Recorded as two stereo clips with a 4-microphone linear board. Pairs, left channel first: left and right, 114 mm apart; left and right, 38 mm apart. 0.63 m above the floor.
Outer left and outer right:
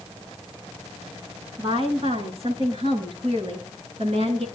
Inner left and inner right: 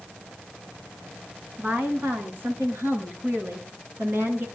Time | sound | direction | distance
1.6 | a woman speaking | 55° right (ahead or behind) | 9 m